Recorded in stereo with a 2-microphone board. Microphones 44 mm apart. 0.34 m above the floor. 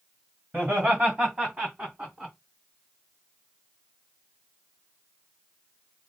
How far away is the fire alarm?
I don't hear a fire alarm.